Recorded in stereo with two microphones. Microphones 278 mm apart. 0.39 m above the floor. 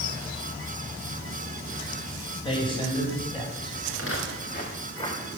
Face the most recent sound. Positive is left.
turn(degrees=10)  # may be behind; listen again after turning